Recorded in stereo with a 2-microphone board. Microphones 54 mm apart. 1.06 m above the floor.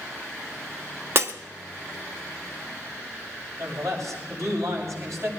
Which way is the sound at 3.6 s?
70° right (ahead or behind).